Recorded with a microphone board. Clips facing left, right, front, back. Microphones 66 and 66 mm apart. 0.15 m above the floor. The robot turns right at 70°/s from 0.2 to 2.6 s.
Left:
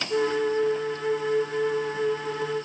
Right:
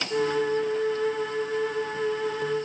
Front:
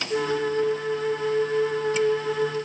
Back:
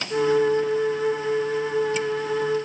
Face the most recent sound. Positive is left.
No sound to turn to.